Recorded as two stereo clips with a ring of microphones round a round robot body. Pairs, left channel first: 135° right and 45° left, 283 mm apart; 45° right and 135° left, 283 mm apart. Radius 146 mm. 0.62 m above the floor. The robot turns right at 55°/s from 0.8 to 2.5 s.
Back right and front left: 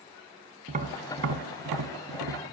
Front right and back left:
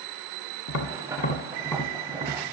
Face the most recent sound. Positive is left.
turn(degrees=80)